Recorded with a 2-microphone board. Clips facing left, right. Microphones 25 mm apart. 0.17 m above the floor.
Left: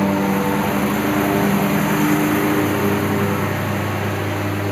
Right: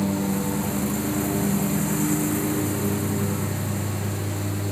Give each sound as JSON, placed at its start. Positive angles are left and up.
{"t": 0.0, "sound": "a lawn mower", "side_deg": 40}